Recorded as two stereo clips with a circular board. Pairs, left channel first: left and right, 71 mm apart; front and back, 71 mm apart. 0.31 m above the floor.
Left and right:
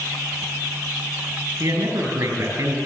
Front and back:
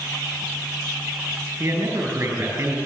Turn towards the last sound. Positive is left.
turn(degrees=-130)